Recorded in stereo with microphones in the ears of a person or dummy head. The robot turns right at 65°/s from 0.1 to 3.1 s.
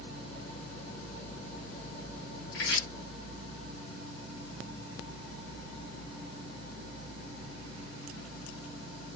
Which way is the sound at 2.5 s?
60° left (ahead or behind).